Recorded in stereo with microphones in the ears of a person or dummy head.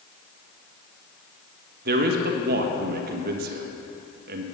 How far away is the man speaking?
About 1.5 m.